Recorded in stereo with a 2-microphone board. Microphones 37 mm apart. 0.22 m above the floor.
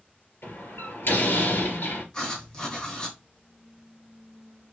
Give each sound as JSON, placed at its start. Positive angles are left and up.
{"t": 0.4, "sound": "a door slam", "side_deg": 75, "distance_m": 2.5}
{"t": 2.1, "sound": "writing", "side_deg": 20, "distance_m": 1.5}